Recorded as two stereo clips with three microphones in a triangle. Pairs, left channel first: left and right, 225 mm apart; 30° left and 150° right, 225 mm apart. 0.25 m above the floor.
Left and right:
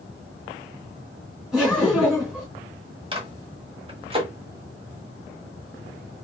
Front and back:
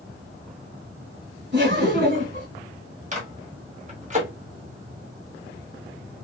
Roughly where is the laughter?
Behind.